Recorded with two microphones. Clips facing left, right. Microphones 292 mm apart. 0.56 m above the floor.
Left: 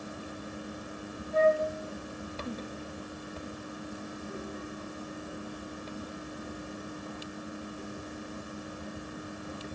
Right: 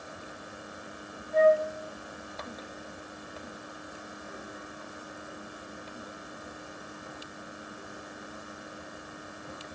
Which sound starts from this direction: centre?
A flute, at 1.3 s.